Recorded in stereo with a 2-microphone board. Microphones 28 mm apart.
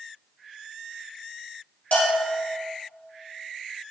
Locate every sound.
1.9 s a bell: 75° left (ahead or behind), 1.8 m